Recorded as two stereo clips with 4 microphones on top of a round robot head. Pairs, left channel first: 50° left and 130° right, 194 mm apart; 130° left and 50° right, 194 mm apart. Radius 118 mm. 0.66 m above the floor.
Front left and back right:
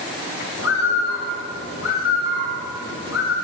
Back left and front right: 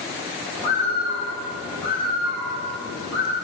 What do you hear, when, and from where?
0.6 s a bird: 30° left, 2.5 m